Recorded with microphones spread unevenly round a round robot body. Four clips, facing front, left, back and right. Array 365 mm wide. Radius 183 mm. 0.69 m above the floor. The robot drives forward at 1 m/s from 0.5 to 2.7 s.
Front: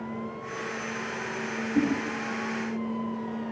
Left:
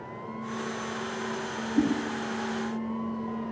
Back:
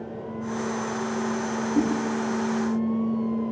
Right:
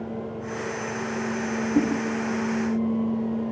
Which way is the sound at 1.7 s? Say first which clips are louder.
Right 2 dB, back 1 dB; 95° right.